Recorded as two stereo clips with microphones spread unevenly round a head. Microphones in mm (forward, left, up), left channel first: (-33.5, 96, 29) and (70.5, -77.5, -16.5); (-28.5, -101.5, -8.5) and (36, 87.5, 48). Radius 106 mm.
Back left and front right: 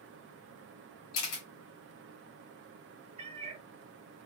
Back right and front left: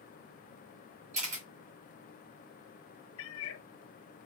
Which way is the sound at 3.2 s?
125° right.